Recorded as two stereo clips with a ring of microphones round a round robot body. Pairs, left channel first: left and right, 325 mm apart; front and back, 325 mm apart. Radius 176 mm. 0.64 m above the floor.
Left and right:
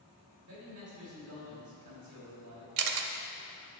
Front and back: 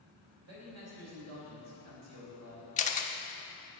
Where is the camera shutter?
70° right, 0.7 m.